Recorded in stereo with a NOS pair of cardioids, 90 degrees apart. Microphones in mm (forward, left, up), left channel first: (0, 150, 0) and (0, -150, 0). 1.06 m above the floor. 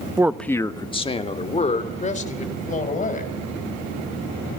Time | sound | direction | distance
0.2 | a man speaking | 15° right | 0.6 m